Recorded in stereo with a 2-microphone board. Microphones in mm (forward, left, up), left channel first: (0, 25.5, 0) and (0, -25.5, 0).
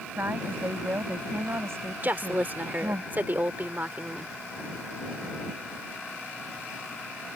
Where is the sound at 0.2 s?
50° right (ahead or behind); by 3.0 s 70° right (ahead or behind).